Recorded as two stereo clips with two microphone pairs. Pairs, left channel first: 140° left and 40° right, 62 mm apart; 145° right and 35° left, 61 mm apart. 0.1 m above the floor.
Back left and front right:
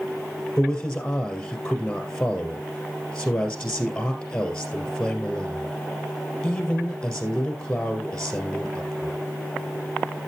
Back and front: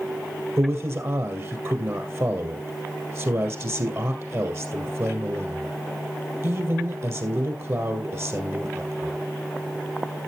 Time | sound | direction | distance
0.6 | a man speaking | 65° left | 2.5 m